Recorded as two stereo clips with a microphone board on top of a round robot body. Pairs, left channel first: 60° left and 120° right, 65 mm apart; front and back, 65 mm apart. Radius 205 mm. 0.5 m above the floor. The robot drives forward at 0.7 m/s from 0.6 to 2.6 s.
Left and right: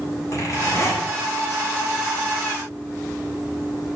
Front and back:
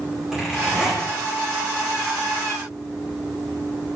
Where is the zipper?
100° left, 10 m; by 1.1 s 105° left, 10 m.